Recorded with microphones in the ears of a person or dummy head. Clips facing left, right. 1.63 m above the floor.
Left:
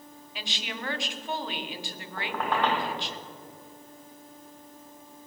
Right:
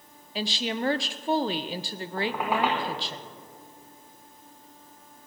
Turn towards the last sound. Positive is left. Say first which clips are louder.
# right 2 dB
turn(degrees=-10)  # may be behind; listen again after turning